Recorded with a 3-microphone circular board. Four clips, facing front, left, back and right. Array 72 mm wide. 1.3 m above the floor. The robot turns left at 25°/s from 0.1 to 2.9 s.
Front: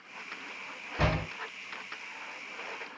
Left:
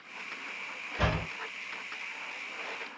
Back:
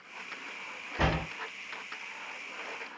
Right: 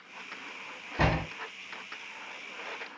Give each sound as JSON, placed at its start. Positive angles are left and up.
{"t": 1.0, "sound": "a door slam", "azimuth_deg": -95, "distance_m": 2.0}